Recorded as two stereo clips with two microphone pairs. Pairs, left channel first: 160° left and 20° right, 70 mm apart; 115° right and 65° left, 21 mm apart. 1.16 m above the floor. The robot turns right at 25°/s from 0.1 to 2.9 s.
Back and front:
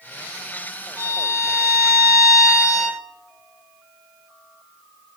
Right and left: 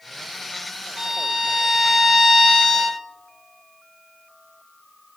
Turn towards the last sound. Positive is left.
turn(degrees=145)